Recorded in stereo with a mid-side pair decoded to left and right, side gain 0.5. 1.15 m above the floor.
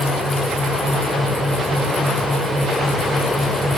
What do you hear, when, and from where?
0.0 s a fan: 15° left, 6 m